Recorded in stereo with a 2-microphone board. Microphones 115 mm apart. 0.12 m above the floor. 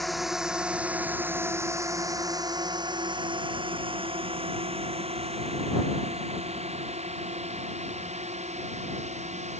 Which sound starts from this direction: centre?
A drone, at 0.0 s.